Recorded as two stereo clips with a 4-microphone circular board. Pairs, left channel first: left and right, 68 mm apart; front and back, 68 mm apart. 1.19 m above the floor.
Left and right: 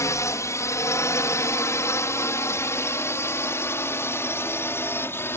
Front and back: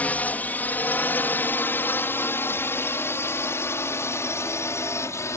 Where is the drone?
60° left; by 5.4 s 40° left.